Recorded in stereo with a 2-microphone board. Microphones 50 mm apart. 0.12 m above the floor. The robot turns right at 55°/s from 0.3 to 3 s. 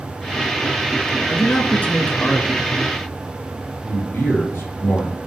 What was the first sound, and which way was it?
A man speaking, 70° left.